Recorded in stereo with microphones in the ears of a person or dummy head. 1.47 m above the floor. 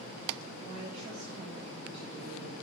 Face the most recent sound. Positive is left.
turn(degrees=-45)  # may be behind; listen again after turning